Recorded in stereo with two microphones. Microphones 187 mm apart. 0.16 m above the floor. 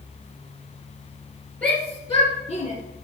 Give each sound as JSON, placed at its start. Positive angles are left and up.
{"t": 1.6, "sound": "a shout", "side_deg": 10, "distance_m": 3.0}